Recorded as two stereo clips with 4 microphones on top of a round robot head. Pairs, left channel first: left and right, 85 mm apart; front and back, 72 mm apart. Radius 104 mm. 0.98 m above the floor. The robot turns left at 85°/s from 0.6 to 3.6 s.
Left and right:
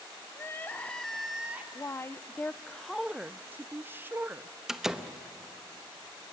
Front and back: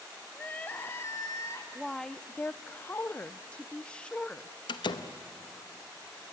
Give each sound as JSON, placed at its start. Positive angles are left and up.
{"t": 0.3, "sound": "crying", "azimuth_deg": 50, "distance_m": 0.5}
{"t": 1.8, "sound": "a woman speaking", "azimuth_deg": 100, "distance_m": 0.5}
{"t": 4.7, "sound": "a door slam", "azimuth_deg": -5, "distance_m": 0.9}